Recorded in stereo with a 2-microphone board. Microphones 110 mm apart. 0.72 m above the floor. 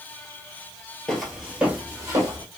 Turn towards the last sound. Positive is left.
turn(degrees=-25)  # may be behind; listen again after turning